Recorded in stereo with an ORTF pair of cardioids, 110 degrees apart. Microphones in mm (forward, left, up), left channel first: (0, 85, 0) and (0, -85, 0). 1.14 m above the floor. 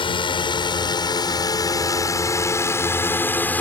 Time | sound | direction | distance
0.0 | a drone | 30° left | ?